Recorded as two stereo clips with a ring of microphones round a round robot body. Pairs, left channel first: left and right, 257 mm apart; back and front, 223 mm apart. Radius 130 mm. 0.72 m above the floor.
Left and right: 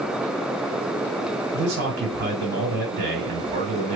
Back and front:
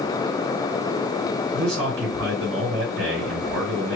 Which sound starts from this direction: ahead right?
A man speaking, at 1.5 s.